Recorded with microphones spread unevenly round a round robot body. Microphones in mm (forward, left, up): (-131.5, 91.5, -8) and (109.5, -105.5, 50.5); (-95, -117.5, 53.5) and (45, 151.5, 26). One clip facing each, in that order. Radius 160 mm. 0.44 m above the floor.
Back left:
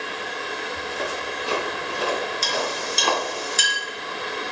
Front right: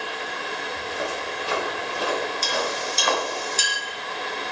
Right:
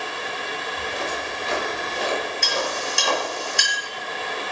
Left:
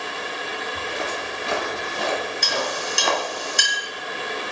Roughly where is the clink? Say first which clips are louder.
Even, even; left.